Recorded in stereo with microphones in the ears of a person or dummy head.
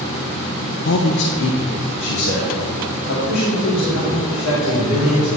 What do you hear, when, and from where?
0.8 s a man speaking: 60° left (ahead or behind), 0.5 m